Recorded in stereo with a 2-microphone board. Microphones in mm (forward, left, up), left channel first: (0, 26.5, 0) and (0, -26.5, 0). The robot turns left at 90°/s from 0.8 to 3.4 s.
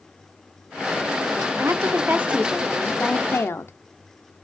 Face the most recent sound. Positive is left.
turn(degrees=110)